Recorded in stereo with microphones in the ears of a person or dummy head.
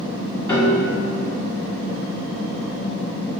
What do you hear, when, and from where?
0.5 s a piano: 10° left (ahead or behind), 1.6 m